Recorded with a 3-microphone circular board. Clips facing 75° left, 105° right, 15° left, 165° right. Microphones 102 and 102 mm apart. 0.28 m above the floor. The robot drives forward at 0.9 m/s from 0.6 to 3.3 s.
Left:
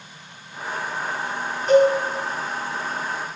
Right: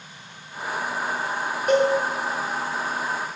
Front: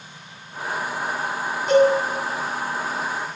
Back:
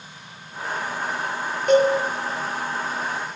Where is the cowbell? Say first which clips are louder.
Left 4 dB, front 1 dB; 140° right, 6 m.